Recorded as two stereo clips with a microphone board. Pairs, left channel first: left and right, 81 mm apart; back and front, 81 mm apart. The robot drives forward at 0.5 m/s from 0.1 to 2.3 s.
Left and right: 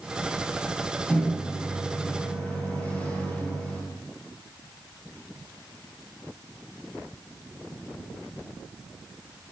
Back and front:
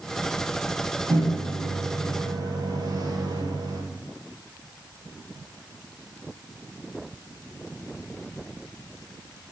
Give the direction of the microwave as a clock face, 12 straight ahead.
11 o'clock.